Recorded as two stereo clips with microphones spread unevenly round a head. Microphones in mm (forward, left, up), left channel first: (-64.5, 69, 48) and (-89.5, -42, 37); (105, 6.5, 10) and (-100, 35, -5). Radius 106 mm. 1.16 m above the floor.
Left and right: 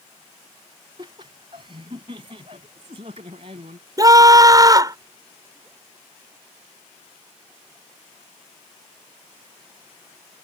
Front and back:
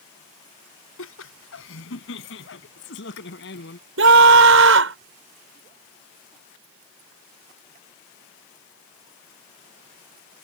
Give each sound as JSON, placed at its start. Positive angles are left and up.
{"t": 1.0, "sound": "laughter", "azimuth_deg": -35}
{"t": 4.0, "sound": "a scream", "azimuth_deg": -160}